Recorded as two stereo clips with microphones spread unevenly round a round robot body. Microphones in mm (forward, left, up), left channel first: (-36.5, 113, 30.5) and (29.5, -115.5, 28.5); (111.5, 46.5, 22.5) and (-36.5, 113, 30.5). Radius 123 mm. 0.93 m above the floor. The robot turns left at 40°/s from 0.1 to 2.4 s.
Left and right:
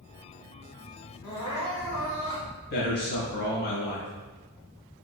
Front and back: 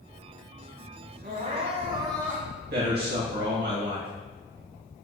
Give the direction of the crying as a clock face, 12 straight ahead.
8 o'clock.